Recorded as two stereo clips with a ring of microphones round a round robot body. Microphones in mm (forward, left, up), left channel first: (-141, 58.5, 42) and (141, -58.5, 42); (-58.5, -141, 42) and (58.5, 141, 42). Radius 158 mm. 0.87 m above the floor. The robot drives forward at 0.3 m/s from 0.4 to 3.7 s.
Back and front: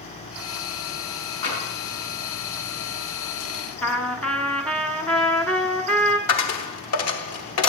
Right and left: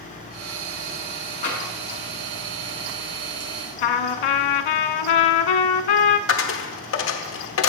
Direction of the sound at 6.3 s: 160° right.